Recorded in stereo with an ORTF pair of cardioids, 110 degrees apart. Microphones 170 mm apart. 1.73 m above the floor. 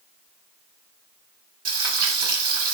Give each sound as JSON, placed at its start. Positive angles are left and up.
{"t": 1.6, "sound": "frying", "azimuth_deg": -60, "distance_m": 0.8}